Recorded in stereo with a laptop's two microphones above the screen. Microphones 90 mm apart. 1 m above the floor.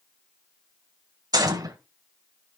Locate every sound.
1.3 s a gunshot: 45° right (ahead or behind), 1.4 m